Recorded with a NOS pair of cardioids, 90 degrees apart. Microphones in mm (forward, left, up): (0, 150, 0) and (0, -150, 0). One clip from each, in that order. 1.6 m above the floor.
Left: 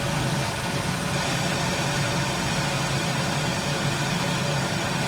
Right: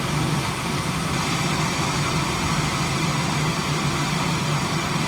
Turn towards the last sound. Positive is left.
turn(degrees=-5)